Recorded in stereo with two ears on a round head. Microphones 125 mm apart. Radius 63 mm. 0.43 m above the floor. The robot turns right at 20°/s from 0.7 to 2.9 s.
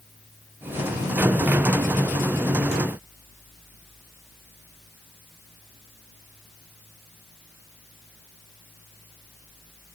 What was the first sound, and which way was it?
Only background noise.